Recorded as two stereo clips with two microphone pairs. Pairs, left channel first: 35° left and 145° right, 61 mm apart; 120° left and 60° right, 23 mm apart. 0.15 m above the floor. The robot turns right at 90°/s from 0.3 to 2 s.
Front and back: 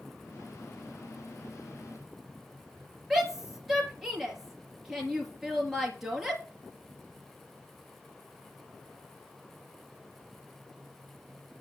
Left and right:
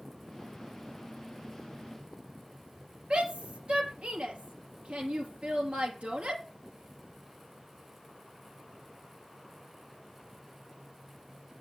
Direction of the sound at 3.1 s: 55° right.